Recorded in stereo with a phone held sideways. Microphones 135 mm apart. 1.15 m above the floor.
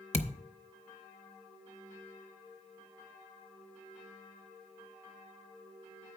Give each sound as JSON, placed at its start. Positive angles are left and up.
{"t": 0.1, "sound": "a thud", "side_deg": 55, "distance_m": 0.7}